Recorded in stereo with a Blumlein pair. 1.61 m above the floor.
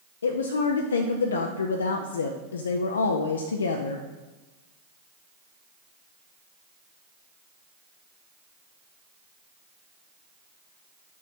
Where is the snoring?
No snoring in this recording.